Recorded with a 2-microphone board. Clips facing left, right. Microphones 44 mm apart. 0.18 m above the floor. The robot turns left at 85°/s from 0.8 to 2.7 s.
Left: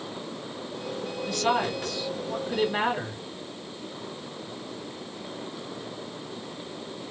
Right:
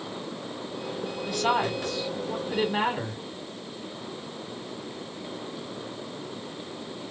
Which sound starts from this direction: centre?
A woman speaking, at 1.3 s.